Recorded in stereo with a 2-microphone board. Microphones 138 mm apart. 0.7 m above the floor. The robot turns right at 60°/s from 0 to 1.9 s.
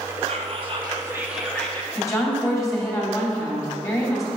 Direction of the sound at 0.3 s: 75° right.